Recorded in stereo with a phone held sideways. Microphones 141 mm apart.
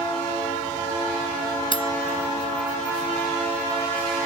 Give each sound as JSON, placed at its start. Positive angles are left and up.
{"t": 1.7, "sound": "cutlery clinking", "side_deg": 35}